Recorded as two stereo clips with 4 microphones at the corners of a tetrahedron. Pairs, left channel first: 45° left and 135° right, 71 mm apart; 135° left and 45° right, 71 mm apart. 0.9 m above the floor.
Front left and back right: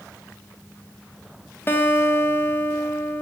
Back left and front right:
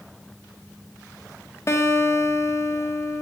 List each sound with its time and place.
1.7 s a guitar: 95° left, 0.7 m